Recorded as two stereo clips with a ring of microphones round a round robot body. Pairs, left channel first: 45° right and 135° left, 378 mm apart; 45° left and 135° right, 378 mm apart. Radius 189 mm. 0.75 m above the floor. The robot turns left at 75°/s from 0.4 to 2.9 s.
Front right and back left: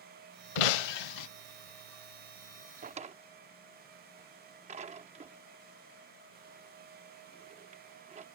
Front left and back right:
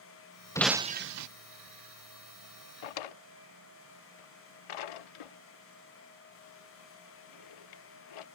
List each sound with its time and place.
0.6 s breaking glass: 35° right; by 1.3 s 90° right
2.8 s a drawer: 65° left; by 8.2 s 60° left